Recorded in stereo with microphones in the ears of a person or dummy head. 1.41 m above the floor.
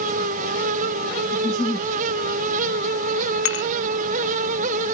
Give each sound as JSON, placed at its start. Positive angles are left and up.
{"t": 1.3, "sound": "a giggle", "side_deg": 15}
{"t": 3.5, "sound": "dishes clattering", "side_deg": 70}